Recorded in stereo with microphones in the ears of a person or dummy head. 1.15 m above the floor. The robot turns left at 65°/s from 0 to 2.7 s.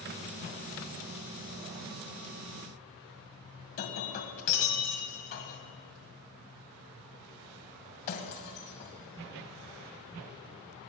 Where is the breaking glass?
45° left (ahead or behind), 2 m.